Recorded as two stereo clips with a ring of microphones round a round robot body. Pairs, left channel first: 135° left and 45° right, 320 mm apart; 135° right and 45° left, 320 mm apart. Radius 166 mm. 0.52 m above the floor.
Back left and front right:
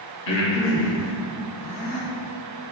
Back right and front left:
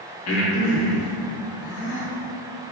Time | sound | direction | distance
0.3 | breathing | straight behind | 0.9 m